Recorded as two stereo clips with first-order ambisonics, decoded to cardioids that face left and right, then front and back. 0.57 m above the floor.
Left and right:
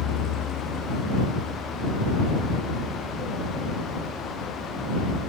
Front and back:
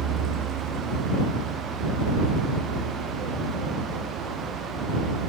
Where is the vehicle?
125° left; by 5.3 s 165° right.